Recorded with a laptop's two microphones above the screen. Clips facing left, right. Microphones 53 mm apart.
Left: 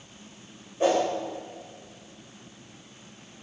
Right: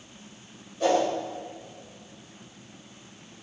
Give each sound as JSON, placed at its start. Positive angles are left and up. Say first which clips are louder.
{"t": 0.8, "sound": "a whoosh", "louder": "even", "side_deg": 25, "distance_m": 5.5}